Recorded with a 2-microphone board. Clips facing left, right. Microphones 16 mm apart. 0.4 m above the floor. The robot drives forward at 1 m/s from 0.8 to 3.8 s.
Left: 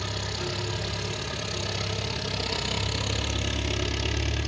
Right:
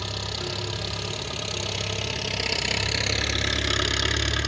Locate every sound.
0.0 s an engine running: 20° right (ahead or behind), 4 m; by 4.5 s 65° right (ahead or behind), 1.6 m